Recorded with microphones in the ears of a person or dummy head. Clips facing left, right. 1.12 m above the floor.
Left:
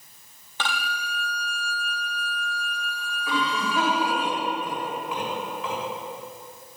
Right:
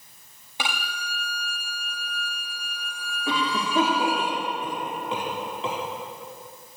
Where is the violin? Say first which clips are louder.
Left 2 dB; 15° right (ahead or behind), 1.5 m.